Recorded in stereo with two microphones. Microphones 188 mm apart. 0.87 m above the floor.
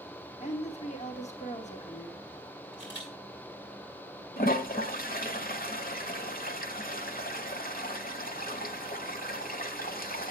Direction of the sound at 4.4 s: 55° left (ahead or behind).